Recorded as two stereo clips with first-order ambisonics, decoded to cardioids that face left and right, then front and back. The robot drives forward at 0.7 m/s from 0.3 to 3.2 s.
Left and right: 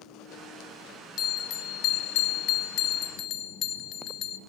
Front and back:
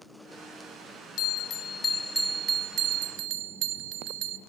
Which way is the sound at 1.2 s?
40° left.